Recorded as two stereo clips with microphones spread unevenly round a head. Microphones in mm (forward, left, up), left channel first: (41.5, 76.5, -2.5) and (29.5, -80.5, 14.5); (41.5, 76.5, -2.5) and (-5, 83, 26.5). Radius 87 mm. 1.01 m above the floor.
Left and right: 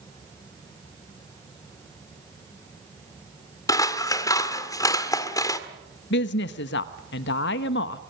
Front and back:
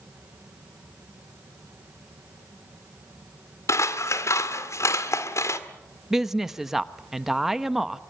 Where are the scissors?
15° left, 1.7 m.